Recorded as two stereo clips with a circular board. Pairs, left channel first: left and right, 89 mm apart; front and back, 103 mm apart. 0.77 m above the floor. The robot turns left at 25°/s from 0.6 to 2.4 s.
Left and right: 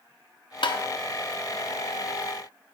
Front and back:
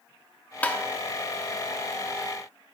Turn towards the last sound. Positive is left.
turn(degrees=30)